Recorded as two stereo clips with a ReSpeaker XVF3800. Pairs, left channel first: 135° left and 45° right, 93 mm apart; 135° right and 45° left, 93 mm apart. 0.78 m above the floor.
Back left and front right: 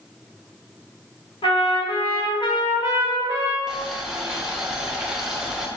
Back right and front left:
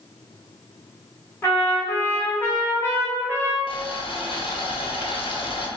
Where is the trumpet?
155° left, 1.3 m.